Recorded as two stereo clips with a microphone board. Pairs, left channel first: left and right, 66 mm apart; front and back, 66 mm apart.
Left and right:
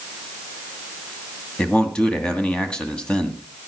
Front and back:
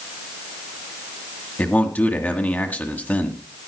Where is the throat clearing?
No throat clearing in this recording.